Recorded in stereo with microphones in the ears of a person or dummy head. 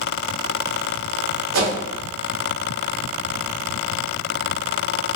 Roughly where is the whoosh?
Right.